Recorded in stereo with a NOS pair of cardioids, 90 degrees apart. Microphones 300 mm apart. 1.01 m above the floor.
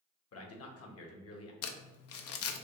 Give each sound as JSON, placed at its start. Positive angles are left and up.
{"t": 0.3, "sound": "a man speaking", "azimuth_deg": 55, "distance_m": 1.1}
{"t": 1.6, "sound": "crumpling", "azimuth_deg": 55, "distance_m": 0.5}